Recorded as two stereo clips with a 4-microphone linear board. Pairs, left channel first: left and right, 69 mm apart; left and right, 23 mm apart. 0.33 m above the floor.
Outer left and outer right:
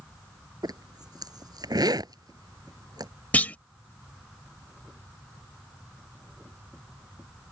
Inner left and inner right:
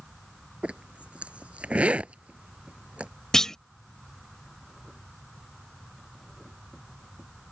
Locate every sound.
0.6 s a zipper: 85° right
3.3 s a clunk: 25° left (ahead or behind)